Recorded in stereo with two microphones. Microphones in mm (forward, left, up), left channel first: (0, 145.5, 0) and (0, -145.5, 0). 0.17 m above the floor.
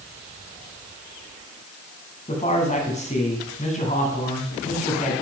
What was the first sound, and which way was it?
A man speaking, 25° left (ahead or behind).